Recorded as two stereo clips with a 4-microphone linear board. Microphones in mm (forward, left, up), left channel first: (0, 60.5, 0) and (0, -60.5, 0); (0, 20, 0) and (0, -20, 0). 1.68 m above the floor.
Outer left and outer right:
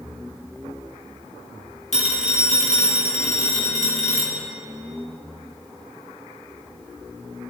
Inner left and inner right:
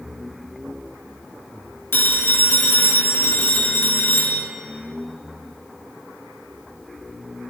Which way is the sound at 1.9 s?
70° left (ahead or behind).